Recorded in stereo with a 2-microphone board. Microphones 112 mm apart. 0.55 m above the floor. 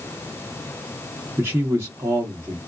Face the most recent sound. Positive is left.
turn(degrees=-25)  # may be behind; listen again after turning